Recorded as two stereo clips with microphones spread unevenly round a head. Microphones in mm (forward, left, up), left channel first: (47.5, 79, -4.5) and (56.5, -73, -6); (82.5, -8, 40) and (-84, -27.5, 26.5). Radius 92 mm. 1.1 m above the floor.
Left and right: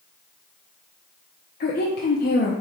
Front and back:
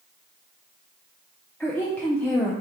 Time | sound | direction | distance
1.6 | a woman speaking | 90° left | 0.5 m